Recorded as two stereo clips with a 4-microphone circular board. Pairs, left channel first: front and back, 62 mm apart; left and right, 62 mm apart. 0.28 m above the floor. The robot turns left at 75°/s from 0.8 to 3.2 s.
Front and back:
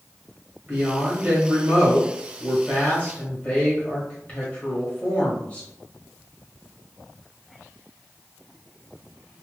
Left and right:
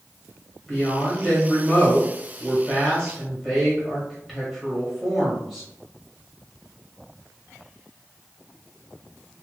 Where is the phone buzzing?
I don't hear a phone buzzing.